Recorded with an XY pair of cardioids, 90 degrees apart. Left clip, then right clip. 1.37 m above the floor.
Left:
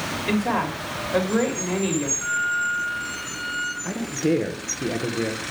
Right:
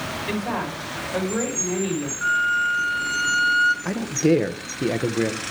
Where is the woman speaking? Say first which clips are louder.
Left 5 dB; 35° left, 3.5 m.